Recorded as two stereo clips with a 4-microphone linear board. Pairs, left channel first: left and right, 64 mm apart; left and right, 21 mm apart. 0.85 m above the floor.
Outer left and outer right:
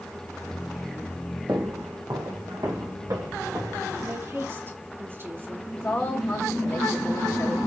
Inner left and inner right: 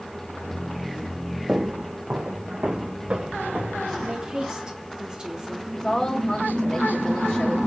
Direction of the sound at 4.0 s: 35° right (ahead or behind).